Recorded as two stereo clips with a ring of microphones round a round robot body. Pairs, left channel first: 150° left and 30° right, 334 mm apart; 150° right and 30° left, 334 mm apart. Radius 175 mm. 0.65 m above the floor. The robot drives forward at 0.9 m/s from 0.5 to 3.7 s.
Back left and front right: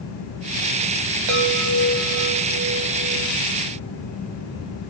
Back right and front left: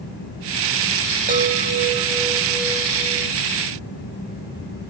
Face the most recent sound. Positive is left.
turn(degrees=-90)